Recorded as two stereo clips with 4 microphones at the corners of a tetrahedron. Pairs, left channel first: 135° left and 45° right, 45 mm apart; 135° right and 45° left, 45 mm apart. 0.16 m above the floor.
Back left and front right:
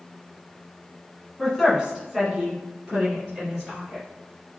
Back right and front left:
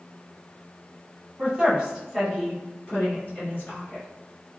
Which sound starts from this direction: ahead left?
A woman speaking, at 1.4 s.